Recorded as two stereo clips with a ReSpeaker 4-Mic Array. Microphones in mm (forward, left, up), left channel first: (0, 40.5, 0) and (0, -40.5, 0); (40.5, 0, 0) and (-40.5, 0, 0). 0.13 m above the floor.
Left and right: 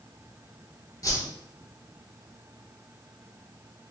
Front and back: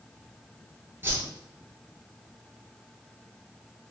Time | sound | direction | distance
1.0 | a whoosh | 125° left | 0.9 m